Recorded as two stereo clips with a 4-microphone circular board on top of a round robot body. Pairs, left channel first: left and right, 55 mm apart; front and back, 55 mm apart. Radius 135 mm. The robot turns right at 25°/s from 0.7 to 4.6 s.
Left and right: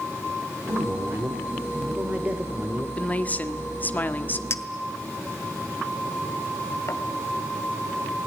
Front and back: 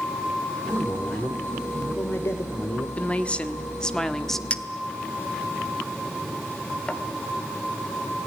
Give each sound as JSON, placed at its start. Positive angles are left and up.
{"t": 0.7, "sound": "a man speaking", "azimuth_deg": -70, "distance_m": 2.0}
{"t": 3.0, "sound": "a woman speaking", "azimuth_deg": 45, "distance_m": 1.6}
{"t": 4.5, "sound": "a clink", "azimuth_deg": 65, "distance_m": 1.3}